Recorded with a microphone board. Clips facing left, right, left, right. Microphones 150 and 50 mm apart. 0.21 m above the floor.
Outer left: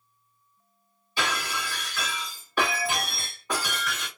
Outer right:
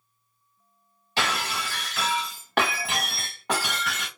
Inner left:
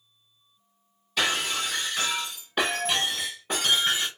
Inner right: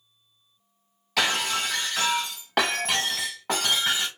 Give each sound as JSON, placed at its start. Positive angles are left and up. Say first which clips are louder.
{"t": 1.2, "sound": "breaking glass", "louder": "outer right 2 dB, inner right 2 dB", "side_deg": -80, "distance_m": 1.9}